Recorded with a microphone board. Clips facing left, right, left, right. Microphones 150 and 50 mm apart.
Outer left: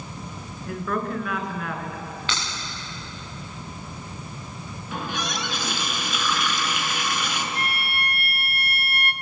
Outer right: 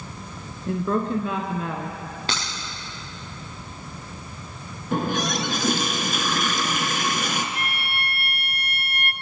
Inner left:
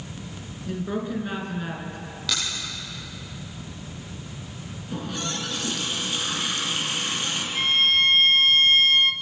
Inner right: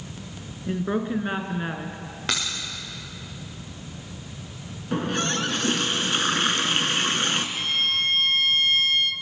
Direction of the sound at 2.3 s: 35° right (ahead or behind).